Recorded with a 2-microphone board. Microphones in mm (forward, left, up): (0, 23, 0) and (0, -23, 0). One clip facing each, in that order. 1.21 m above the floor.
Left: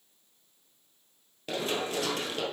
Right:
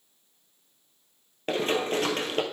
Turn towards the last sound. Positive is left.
turn(degrees=-40)  # may be behind; listen again after turning